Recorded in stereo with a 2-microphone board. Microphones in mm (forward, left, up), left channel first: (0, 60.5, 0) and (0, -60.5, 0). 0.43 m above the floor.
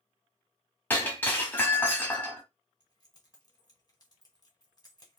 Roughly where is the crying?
I don't hear crying.